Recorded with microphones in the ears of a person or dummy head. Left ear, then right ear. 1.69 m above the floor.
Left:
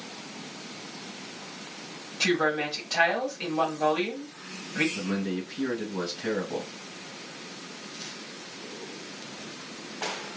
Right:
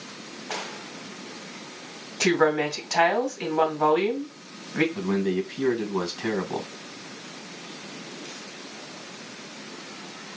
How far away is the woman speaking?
About 1.9 m.